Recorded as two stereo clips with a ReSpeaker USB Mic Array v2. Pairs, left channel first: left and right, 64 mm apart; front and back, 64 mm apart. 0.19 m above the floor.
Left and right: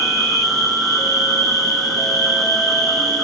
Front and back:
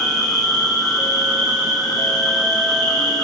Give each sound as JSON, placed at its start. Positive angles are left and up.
{"t": 0.0, "sound": "an insect", "azimuth_deg": 0, "distance_m": 4.5}